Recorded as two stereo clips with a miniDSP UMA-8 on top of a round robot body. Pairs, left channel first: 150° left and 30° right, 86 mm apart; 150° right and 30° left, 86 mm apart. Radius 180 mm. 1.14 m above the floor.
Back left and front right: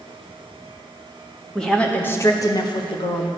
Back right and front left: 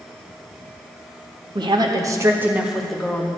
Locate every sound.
1.6 s a woman speaking: 65° left, 1.7 m; by 3.3 s 135° left, 1.6 m